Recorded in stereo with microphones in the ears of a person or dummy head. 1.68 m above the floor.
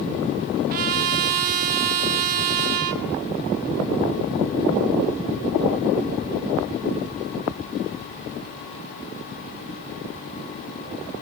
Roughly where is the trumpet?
Right.